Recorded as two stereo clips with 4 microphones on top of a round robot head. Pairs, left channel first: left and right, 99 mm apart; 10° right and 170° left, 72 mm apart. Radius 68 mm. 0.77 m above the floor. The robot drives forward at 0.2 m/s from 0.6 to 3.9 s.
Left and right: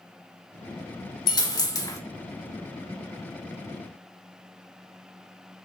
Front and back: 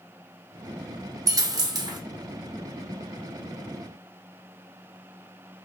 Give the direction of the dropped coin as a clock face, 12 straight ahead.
7 o'clock.